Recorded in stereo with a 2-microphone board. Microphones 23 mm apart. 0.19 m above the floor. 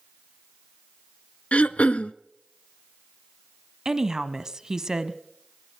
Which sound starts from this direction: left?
Throat clearing, at 1.5 s.